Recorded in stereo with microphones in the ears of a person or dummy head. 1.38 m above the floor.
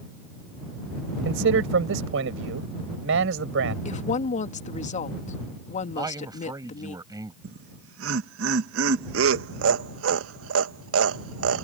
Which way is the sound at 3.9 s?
35° left (ahead or behind).